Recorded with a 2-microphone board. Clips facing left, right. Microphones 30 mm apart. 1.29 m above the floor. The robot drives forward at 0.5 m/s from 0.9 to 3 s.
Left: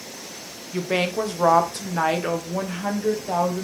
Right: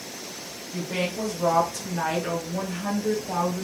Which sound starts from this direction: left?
A woman speaking, at 0.7 s.